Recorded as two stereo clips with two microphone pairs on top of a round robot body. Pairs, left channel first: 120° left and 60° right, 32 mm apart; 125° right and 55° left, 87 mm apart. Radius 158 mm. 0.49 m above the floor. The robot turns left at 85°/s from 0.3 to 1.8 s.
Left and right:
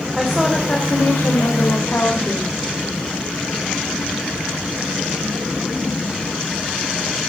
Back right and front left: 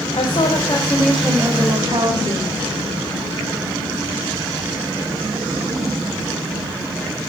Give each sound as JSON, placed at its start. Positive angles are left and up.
{"t": 0.1, "sound": "a woman speaking", "azimuth_deg": -140, "distance_m": 3.5}